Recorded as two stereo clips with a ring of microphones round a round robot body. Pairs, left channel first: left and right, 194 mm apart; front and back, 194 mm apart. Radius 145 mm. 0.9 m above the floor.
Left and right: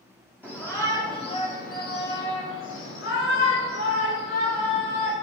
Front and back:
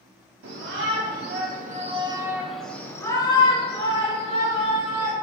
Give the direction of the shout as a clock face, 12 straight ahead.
6 o'clock.